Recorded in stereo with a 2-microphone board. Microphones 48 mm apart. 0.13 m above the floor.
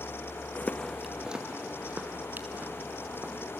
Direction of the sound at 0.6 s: 40° left (ahead or behind).